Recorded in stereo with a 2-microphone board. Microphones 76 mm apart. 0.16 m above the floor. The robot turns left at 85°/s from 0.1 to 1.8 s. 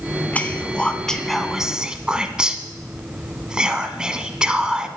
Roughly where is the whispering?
Centre.